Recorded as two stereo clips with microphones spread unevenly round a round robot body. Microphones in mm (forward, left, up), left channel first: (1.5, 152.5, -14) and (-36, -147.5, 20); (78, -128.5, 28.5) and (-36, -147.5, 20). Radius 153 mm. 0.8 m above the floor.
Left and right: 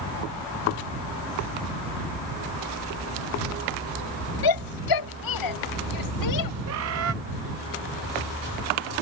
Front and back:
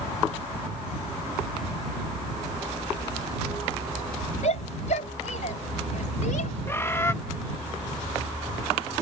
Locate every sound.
4.4 s a shout: 70° left; by 6.5 s 55° left
6.7 s a bird: 60° right